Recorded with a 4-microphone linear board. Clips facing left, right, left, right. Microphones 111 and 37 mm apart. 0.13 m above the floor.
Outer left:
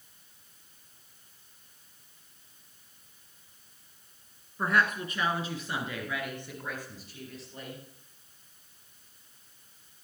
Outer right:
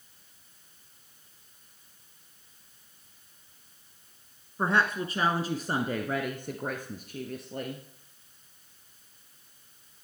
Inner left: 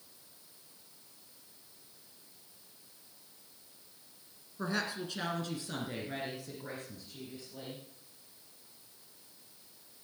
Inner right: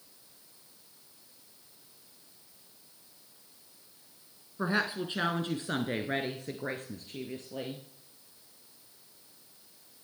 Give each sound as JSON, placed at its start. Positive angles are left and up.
{"t": 4.6, "sound": "a woman speaking", "side_deg": -25, "distance_m": 1.3}